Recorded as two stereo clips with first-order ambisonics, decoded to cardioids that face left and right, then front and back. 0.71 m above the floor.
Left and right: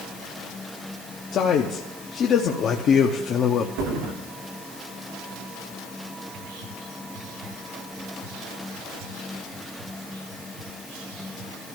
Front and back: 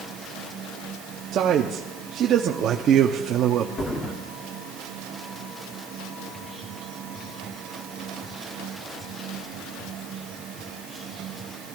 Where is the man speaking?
135° left, 0.8 m.